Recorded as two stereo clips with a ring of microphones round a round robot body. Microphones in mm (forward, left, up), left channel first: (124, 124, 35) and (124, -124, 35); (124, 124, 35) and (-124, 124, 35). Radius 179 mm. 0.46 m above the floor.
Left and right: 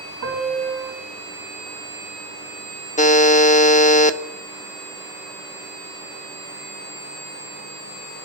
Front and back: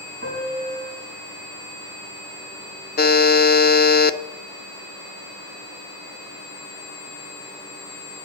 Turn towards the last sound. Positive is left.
turn(degrees=40)